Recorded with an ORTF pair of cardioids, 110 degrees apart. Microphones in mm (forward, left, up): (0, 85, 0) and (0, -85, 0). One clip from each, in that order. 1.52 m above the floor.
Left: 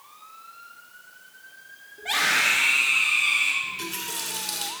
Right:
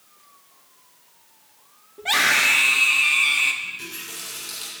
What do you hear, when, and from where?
2.0 s a scream: 40° right, 3.5 m
3.6 s a running tap: 35° left, 4 m